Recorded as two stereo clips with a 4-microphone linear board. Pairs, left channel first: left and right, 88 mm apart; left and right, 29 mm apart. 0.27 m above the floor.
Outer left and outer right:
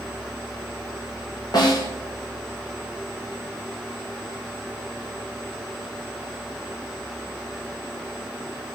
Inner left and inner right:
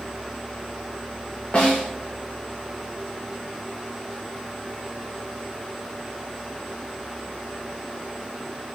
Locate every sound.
1.5 s a snare drum: 50° left (ahead or behind), 5.5 m